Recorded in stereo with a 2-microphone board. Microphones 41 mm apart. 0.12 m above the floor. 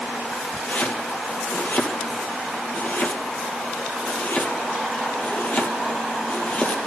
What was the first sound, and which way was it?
Chopping, 50° left (ahead or behind).